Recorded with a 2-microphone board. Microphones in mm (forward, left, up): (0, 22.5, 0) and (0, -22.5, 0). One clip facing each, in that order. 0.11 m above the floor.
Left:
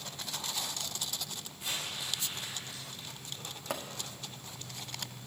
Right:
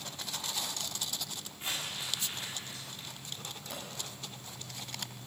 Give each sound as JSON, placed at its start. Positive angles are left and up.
{"t": 1.6, "sound": "crumpling", "side_deg": -30, "distance_m": 4.5}
{"t": 3.7, "sound": "a pop", "side_deg": 75, "distance_m": 1.6}